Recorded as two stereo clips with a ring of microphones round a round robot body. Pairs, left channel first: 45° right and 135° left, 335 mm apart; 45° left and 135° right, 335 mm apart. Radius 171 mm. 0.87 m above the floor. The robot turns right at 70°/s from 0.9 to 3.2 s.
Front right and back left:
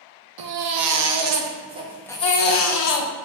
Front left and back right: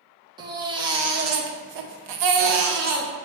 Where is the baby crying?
150° left, 0.6 m; by 3.1 s 55° right, 0.6 m.